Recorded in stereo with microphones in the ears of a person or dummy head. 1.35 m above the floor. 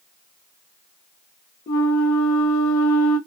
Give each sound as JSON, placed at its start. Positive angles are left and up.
{"t": 1.7, "sound": "a flute", "side_deg": 40, "distance_m": 1.3}